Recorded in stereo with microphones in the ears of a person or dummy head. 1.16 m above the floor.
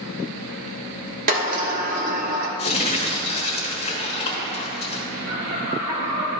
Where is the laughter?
55° right (ahead or behind), 1.8 m.